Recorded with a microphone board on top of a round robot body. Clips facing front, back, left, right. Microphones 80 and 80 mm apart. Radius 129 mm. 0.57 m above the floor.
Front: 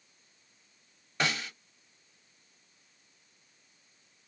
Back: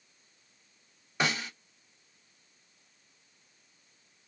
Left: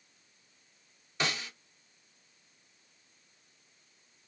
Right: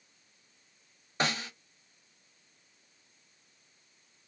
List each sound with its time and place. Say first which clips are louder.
1.2 s a snare drum: back 1 dB, right 3 dB; 105° right, 1.6 m